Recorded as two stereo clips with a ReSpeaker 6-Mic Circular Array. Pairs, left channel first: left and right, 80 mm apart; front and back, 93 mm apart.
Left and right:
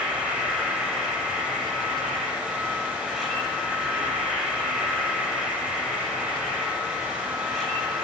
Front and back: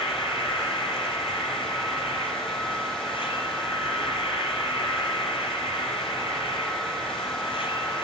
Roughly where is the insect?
Ahead.